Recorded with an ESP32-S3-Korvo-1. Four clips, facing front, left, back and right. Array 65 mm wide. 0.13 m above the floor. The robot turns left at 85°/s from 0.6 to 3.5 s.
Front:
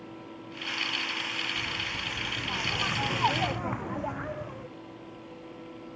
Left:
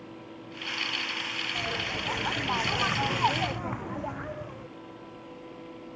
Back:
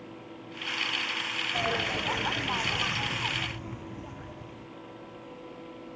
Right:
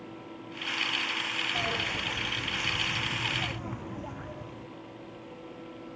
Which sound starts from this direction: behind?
A bird, at 1.5 s.